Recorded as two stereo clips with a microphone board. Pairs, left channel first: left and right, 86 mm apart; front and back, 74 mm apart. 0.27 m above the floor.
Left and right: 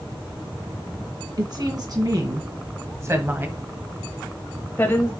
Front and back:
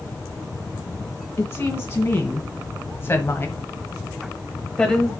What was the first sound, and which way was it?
A woman speaking, 55° right.